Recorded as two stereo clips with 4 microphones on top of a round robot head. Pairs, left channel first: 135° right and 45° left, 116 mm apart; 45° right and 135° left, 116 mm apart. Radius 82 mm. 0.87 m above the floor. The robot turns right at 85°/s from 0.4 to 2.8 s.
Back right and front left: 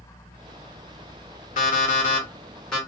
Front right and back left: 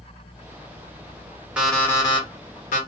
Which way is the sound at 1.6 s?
145° right.